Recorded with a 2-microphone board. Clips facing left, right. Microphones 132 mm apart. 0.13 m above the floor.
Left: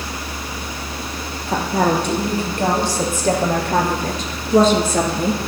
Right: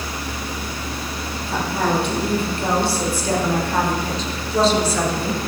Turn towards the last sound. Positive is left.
turn(degrees=45)  # may be behind; listen again after turning